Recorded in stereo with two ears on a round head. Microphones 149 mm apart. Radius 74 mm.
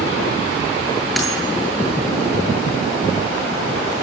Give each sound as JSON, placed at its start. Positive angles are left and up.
{"t": 1.2, "sound": "a dropped coin", "side_deg": 0, "distance_m": 9.0}